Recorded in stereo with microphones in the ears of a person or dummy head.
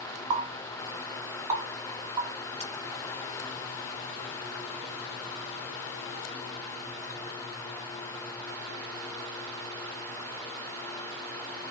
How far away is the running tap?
About 1.5 m.